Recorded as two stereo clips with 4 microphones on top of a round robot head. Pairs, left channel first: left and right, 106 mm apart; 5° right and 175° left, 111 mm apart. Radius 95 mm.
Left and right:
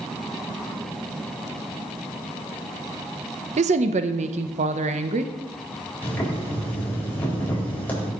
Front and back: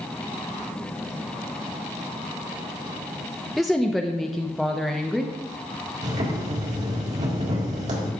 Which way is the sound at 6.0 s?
165° left.